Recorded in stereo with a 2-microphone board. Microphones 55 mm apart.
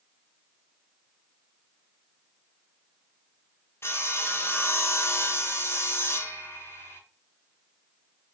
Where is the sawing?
45° left (ahead or behind), 0.7 m.